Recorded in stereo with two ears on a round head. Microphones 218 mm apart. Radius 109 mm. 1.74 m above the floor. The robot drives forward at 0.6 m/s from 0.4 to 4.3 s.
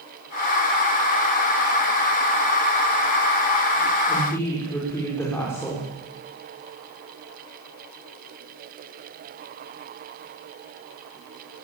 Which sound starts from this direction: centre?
A woman speaking, at 4.1 s.